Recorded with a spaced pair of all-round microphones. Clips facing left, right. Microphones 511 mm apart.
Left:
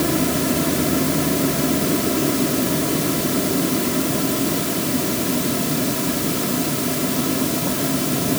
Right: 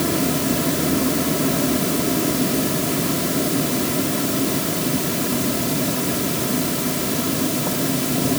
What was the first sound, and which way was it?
Only background noise.